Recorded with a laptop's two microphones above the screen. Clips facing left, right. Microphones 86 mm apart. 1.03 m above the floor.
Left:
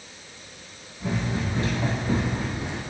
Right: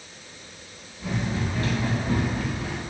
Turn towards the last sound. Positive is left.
turn(degrees=25)  # may be behind; listen again after turning